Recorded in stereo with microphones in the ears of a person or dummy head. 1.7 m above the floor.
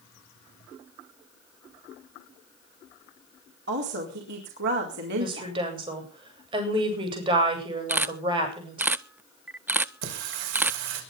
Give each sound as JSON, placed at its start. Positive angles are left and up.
{"t": 3.7, "sound": "a woman speaking", "side_deg": -55, "distance_m": 4.0}
{"t": 5.2, "sound": "a woman speaking", "side_deg": -25, "distance_m": 8.5}
{"t": 7.9, "sound": "a camera shutter", "side_deg": -10, "distance_m": 0.6}
{"t": 10.0, "sound": "singing", "side_deg": -65, "distance_m": 5.0}